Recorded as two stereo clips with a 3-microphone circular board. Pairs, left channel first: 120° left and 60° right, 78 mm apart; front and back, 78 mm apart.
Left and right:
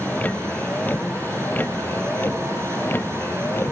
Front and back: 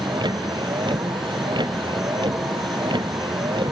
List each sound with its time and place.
0.0 s a vehicle: 170° right; by 3.7 s straight behind